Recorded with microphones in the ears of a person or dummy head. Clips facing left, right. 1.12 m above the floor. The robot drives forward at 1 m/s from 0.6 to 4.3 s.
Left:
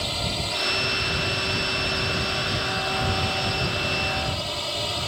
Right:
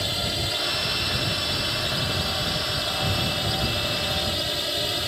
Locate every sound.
0.0 s a drone: 15° right (ahead or behind); by 5.1 s 20° right (ahead or behind)